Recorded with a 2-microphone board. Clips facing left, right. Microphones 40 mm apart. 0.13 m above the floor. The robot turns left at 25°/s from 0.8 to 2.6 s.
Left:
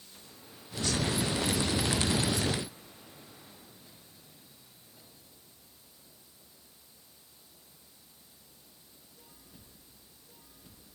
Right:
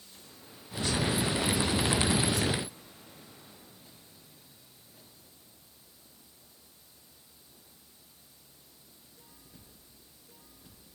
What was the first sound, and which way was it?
Only background noise.